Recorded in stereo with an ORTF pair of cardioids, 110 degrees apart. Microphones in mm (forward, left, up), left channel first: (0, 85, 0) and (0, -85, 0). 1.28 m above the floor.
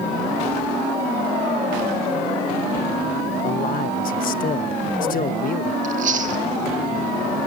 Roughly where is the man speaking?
Ahead left.